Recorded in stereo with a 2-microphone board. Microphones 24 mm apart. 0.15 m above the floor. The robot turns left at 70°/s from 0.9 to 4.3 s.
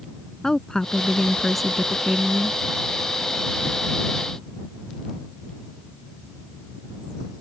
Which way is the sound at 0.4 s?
50° left.